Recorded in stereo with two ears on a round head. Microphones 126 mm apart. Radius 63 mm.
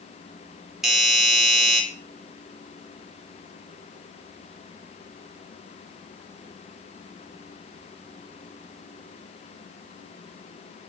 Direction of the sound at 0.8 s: 5° right (ahead or behind).